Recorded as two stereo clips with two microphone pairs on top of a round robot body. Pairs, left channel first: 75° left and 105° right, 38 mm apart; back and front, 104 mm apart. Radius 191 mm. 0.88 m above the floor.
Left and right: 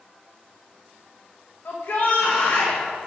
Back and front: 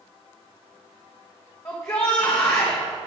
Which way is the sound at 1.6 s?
120° left.